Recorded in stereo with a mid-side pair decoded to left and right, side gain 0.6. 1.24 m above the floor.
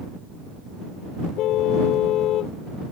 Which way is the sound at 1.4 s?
60° left.